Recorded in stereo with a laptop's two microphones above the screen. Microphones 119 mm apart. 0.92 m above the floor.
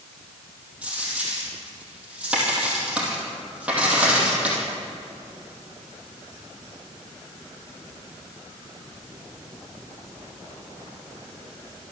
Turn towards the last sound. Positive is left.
turn(degrees=-10)  # may be behind; listen again after turning